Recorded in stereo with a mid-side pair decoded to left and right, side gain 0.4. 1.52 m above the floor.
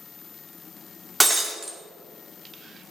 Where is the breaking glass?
15° right, 2.5 m.